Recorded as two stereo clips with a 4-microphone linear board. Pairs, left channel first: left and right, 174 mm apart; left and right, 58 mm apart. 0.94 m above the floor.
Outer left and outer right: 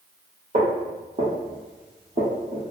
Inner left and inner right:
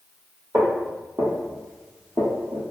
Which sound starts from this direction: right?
Footsteps, at 0.5 s.